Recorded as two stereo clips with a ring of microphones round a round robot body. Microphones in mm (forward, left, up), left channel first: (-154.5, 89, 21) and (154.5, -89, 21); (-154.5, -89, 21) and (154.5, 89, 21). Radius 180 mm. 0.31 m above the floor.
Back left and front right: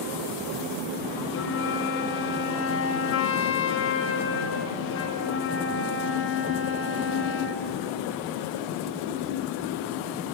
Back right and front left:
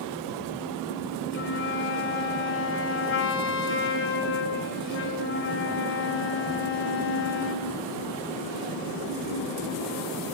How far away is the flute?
About 1.7 m.